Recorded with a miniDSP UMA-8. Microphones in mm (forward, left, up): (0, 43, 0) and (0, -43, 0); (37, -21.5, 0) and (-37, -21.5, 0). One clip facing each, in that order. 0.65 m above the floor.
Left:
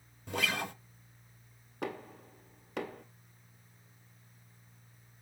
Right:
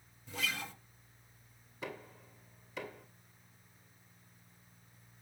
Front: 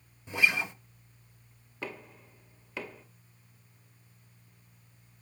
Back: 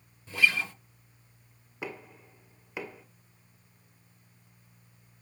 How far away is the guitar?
About 0.7 m.